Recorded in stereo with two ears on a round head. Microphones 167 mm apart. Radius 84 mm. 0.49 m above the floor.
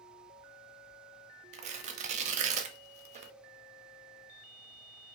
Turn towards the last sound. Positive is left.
turn(degrees=-40)  # may be behind; listen again after turning